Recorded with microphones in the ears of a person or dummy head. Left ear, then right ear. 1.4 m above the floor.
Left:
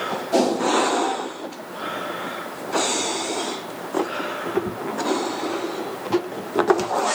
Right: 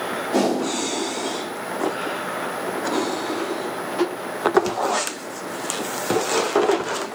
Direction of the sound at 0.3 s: 35° left (ahead or behind).